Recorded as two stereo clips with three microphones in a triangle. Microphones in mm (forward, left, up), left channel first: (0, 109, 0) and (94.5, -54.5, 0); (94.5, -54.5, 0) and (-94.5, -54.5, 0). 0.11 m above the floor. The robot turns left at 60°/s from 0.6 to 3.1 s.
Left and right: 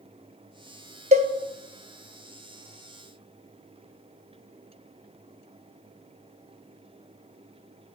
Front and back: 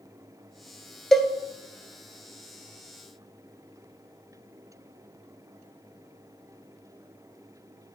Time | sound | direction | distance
1.1 | a cowbell | 85° right | 0.6 m